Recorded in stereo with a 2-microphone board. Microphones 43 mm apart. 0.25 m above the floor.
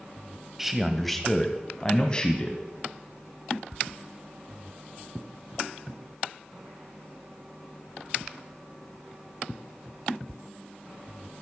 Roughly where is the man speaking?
Centre.